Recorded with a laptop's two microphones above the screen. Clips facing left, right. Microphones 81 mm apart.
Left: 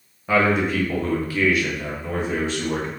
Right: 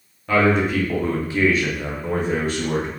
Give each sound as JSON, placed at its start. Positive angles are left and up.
{"t": 0.3, "sound": "a man speaking", "side_deg": 10, "distance_m": 0.7}